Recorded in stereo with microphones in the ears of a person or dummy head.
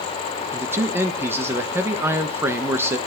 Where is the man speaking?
15° right (ahead or behind), 1.3 m.